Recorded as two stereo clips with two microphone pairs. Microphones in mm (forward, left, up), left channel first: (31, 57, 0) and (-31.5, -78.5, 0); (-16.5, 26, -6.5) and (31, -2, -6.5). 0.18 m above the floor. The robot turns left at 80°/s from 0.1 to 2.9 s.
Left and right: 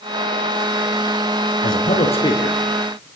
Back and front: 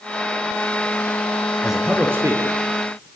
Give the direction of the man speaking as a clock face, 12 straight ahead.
10 o'clock.